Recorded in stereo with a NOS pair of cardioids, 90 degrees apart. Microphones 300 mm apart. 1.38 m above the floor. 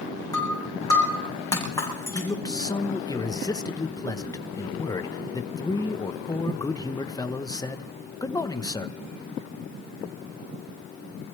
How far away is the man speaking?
About 1.1 m.